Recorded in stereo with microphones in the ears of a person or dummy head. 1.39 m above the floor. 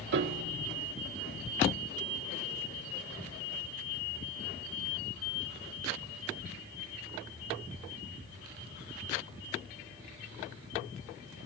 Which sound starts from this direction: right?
A piano, at 0.1 s.